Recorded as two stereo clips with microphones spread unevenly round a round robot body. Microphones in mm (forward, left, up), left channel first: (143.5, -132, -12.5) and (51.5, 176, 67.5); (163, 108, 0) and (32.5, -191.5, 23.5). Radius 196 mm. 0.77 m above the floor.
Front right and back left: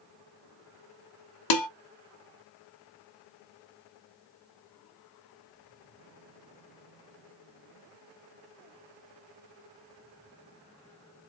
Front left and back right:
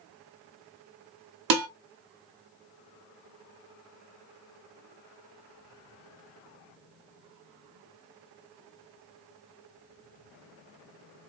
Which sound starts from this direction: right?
Dishes clattering, at 1.5 s.